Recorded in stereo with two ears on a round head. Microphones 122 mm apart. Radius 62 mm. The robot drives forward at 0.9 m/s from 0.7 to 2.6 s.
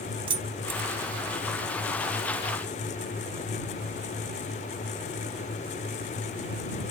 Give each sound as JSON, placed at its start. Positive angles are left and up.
{"t": 0.3, "sound": "keys jangling", "side_deg": -40, "distance_m": 1.0}